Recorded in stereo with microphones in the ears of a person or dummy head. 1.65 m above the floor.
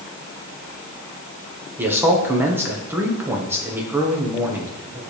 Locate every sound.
1.8 s a man speaking: 10° right (ahead or behind), 1.0 m